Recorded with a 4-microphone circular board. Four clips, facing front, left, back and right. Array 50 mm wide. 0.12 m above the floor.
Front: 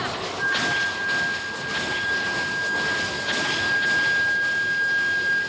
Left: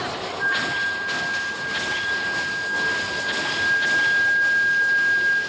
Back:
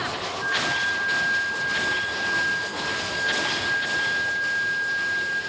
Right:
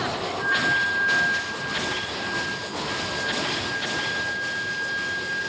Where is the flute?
5° right, 1.1 m.